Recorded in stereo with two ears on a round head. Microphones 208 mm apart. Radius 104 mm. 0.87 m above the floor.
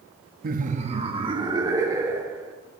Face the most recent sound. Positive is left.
turn(degrees=-10)  # may be behind; listen again after turning